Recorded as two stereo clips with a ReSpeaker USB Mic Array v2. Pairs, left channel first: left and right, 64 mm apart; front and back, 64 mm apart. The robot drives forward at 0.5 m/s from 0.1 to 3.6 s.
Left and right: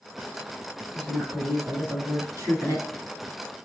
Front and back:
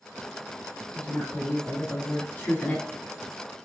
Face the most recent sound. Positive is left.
turn(degrees=-85)